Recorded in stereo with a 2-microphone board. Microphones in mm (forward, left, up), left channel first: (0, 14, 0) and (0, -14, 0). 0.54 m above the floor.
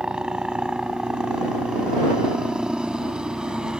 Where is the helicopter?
30° right (ahead or behind).